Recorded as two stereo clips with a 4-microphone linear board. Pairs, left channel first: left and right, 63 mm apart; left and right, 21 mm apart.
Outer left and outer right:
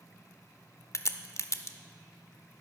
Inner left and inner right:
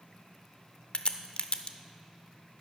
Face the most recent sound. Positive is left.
turn(degrees=50)  # may be behind; listen again after turning